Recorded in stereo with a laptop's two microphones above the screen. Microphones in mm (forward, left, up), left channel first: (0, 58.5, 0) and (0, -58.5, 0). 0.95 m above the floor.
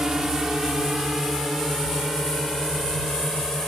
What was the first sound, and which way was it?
A drone, 5° right (ahead or behind).